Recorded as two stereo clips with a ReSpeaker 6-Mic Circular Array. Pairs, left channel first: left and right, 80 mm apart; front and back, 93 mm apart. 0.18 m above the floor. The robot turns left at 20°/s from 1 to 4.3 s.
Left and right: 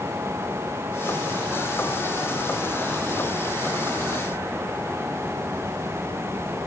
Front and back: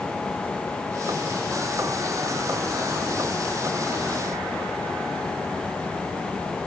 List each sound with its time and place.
Only background noise.